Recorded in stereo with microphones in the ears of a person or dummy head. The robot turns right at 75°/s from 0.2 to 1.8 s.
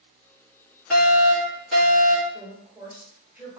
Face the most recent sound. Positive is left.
turn(degrees=-10)  # may be behind; listen again after turning